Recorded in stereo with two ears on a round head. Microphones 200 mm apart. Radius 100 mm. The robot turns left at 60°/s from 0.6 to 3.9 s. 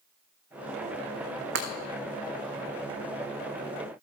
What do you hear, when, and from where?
1.6 s breaking glass: 50° right (ahead or behind), 2 m; by 1.7 s 45° right (ahead or behind), 2 m